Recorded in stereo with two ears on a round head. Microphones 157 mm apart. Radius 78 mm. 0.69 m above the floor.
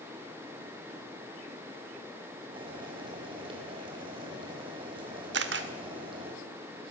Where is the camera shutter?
70° right (ahead or behind), 2 m.